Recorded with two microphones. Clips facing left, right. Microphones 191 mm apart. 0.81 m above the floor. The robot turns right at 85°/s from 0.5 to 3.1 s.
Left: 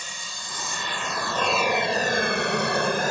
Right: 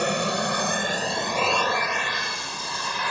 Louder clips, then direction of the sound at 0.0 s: Right 20 dB; 70° right (ahead or behind).